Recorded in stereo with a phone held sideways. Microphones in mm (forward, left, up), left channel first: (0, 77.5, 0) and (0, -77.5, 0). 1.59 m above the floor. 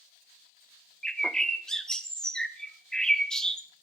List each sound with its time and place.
1.0 s a bird: 5° left (ahead or behind), 0.6 m